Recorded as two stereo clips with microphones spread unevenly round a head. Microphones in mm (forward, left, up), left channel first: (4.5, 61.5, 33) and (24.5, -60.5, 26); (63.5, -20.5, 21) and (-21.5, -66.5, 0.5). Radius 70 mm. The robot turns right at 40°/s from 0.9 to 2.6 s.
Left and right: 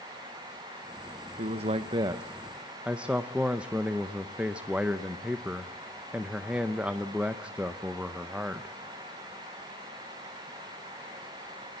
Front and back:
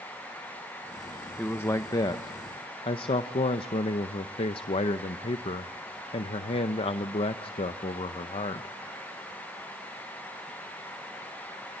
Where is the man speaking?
45° right, 0.7 m; by 8.8 s straight ahead, 0.7 m.